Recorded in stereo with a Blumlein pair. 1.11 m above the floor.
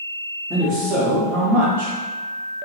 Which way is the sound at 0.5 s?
15° right.